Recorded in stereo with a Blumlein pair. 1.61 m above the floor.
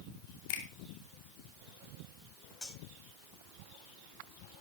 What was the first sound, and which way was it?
A finger snap, 50° left.